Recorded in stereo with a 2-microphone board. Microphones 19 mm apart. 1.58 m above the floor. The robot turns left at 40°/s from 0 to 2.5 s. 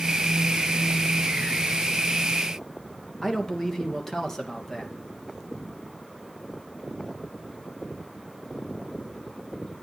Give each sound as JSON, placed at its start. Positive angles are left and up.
{"t": 3.2, "sound": "a man speaking", "side_deg": 20, "distance_m": 2.5}